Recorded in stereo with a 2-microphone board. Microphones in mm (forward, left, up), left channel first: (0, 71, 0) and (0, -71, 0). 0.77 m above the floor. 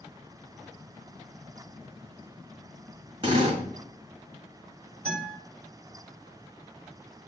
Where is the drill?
40° right (ahead or behind), 1.5 m.